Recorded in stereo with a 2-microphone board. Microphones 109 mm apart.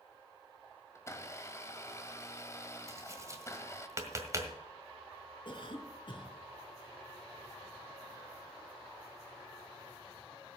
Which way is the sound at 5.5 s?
50° left (ahead or behind).